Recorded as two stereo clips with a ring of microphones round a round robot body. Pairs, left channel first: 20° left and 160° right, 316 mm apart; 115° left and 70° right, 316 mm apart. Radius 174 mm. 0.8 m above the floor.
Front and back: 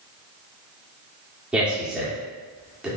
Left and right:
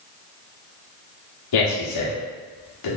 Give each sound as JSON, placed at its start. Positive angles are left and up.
{"t": 1.5, "sound": "a man speaking", "azimuth_deg": 115, "distance_m": 1.8}